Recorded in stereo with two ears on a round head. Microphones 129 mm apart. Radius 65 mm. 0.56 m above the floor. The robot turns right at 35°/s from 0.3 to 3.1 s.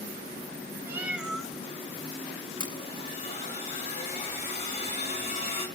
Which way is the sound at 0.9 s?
15° right (ahead or behind).